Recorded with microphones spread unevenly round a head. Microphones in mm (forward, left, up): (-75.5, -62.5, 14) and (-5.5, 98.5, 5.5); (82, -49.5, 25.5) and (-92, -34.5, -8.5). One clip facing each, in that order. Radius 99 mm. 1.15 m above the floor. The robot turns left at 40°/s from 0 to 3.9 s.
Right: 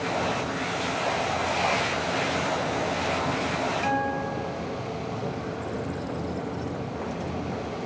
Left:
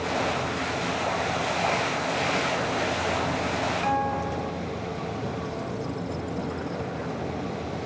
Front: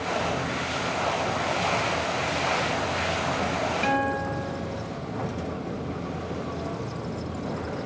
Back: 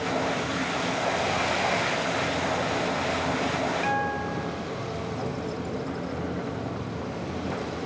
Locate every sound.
3.8 s a guitar: 35° right